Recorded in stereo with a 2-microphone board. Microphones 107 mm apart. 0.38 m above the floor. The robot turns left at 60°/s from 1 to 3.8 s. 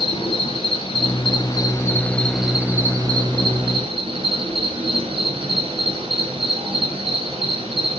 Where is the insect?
85° left, 1.3 m; by 8.0 s 85° right, 1.3 m.